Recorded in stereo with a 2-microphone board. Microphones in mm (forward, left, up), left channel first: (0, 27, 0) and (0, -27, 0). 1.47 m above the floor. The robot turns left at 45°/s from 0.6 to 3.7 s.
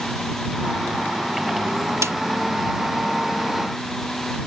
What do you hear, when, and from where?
2.0 s a snare drum: 70° right (ahead or behind); by 2.2 s 65° right (ahead or behind)